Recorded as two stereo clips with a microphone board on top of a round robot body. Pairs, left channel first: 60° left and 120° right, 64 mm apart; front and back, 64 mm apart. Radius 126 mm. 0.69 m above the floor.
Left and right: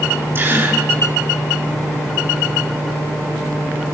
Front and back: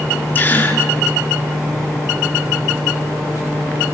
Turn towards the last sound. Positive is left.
turn(degrees=-60)